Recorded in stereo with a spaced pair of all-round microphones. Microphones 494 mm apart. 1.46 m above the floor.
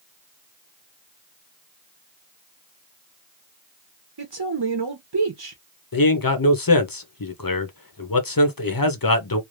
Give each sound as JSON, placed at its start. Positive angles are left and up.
{"t": 4.2, "sound": "a man speaking", "side_deg": -50, "distance_m": 0.8}
{"t": 5.9, "sound": "a man speaking", "side_deg": 45, "distance_m": 0.8}